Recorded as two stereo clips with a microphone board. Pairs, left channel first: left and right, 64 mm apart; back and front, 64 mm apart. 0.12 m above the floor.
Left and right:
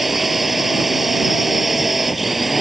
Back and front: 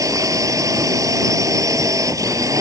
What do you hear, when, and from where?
0.0 s a drone: 5° right